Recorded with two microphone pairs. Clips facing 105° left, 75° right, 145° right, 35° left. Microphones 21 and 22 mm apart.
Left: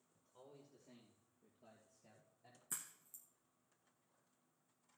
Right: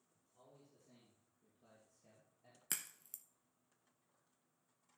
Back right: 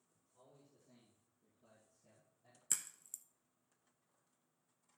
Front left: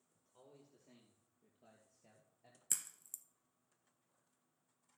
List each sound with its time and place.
0.1 s a man speaking: 70° left, 3 m; by 2.6 s 10° left, 3.5 m
2.7 s a crack: 60° right, 0.8 m